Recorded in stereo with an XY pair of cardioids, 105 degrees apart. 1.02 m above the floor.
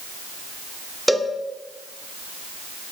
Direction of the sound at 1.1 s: Straight ahead.